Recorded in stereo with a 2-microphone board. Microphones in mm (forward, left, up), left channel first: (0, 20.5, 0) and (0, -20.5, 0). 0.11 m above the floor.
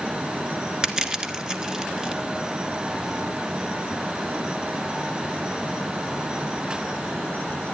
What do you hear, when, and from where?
0.8 s crushing: 20° right (ahead or behind), 1.1 m